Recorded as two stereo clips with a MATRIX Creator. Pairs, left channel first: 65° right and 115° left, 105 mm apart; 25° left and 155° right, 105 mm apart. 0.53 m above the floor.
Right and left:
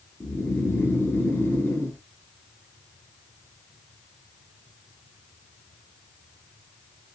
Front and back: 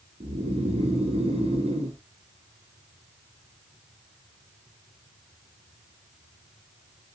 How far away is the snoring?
About 2.0 m.